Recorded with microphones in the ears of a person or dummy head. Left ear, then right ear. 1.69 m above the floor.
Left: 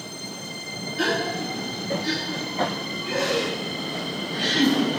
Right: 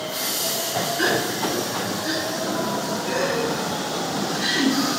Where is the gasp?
25° left (ahead or behind), 1.9 m.